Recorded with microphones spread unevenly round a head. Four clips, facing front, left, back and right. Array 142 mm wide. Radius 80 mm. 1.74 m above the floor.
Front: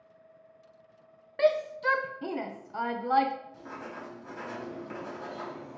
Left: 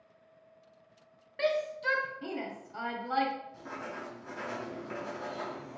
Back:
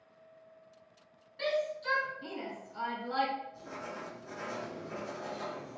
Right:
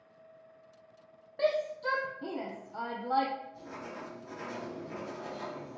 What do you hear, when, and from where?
1.4 s a shout: 15° right, 0.9 m
3.5 s writing: 60° left, 4 m